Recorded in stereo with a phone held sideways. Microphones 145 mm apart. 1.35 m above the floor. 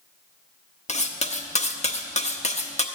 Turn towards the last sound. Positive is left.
turn(degrees=50)  # may be behind; listen again after turning